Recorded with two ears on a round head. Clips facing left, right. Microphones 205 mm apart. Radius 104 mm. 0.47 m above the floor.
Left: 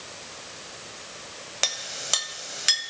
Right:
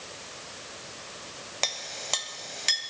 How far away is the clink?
About 1.3 m.